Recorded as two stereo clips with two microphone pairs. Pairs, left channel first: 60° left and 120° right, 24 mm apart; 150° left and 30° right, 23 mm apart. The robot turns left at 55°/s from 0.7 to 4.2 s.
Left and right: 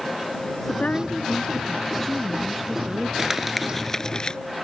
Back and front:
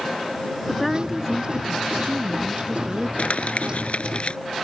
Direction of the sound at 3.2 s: 170° left.